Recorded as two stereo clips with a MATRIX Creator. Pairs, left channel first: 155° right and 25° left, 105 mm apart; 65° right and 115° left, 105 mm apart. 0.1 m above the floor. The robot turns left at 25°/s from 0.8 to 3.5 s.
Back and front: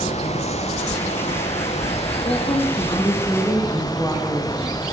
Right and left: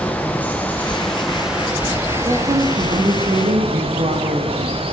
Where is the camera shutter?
I don't hear a camera shutter.